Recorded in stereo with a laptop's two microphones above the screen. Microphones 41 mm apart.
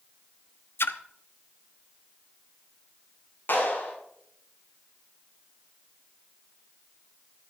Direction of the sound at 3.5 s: 55° left (ahead or behind).